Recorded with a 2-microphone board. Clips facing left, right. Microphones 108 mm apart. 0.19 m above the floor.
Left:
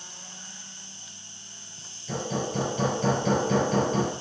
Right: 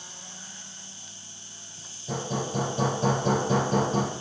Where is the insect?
5° right (ahead or behind), 2.5 m.